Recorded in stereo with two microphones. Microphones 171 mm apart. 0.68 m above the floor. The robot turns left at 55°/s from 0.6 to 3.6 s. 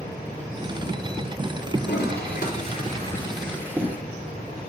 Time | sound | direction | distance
1.8 | a toilet flushing | 90° left | 4.5 m